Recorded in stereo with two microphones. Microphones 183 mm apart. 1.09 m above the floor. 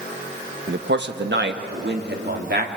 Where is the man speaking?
70° right (ahead or behind), 1.2 m; by 2.7 s 65° right (ahead or behind), 2.5 m.